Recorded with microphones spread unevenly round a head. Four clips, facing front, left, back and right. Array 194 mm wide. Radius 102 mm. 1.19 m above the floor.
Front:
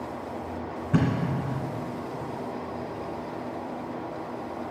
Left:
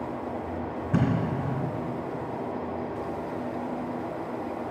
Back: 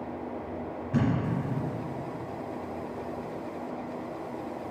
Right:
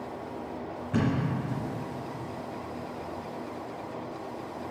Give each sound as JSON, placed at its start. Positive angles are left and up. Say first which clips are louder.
{"t": 0.9, "sound": "a thud", "louder": "left 1 dB, front 2 dB", "azimuth_deg": 20, "distance_m": 2.0}